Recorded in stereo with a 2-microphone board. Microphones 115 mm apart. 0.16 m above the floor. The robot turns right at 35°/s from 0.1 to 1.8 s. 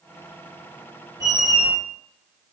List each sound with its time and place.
1.2 s a squeak: 30° right (ahead or behind), 0.6 m; by 1.7 s 50° right (ahead or behind), 0.6 m